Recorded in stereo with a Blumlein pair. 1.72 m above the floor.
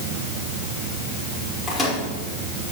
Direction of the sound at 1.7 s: 10° left.